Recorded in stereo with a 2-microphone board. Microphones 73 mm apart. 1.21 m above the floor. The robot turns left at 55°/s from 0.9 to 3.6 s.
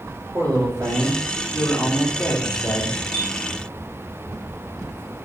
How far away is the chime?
About 2.5 m.